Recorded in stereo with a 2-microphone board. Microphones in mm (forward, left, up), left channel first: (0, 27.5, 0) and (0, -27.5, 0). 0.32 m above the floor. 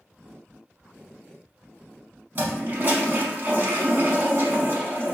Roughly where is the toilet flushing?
Right.